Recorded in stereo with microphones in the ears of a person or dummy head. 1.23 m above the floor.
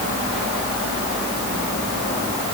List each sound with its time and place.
Only background noise.